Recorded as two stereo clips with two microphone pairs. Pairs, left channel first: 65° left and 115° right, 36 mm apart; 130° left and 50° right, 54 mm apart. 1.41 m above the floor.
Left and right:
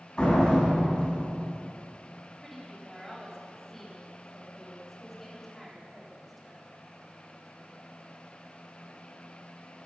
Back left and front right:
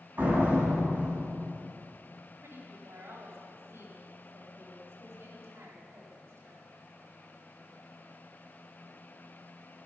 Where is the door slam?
Straight ahead, 7 m.